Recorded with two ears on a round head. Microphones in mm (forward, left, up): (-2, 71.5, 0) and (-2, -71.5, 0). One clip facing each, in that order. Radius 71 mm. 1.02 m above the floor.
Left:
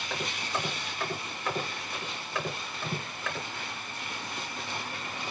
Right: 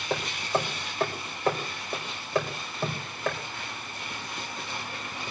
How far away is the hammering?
About 4.5 m.